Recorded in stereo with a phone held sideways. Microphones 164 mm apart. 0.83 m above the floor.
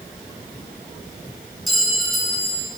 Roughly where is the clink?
Centre.